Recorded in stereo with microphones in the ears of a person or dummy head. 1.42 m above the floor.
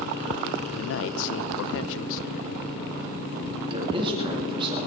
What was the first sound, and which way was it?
A man speaking, 75° left (ahead or behind).